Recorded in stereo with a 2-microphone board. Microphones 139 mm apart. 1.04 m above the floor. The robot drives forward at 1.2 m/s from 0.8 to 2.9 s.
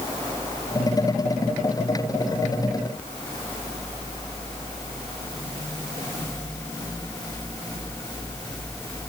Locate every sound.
Only background noise.